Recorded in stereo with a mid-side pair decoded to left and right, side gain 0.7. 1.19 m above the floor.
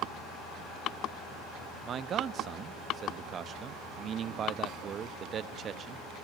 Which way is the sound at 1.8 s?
35° right.